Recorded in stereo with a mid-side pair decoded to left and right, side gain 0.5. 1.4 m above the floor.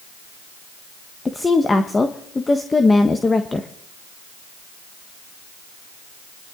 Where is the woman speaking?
20° left, 1.3 m.